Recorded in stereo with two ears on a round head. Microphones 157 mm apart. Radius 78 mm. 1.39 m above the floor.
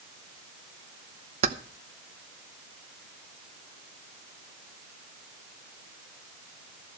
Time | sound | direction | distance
1.4 | keys jangling | 40° right (ahead or behind) | 0.8 m